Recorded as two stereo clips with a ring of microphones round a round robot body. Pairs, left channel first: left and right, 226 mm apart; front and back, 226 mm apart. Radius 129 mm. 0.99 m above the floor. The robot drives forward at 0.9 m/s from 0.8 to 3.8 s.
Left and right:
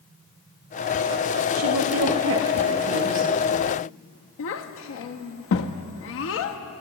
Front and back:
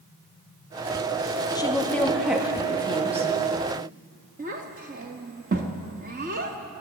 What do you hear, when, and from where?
1.6 s a woman speaking: 70° right, 1.9 m; by 3.3 s 120° right, 2 m
4.4 s a child speaking: 120° left, 0.7 m